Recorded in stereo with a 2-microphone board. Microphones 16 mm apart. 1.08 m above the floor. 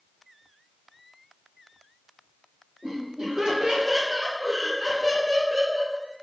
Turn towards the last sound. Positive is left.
turn(degrees=-50)  # may be behind; listen again after turning